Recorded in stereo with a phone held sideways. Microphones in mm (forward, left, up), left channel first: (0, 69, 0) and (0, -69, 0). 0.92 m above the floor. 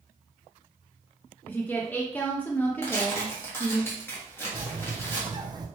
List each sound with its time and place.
1.5 s a woman speaking: 10° left (ahead or behind), 0.6 m
2.8 s tearing paper: 15° left (ahead or behind), 1.4 m
4.5 s a bird: 30° right (ahead or behind), 0.6 m